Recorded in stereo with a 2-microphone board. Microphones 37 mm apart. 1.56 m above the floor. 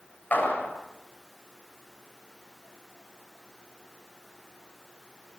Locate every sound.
0.3 s a clap: 55° left (ahead or behind), 8 m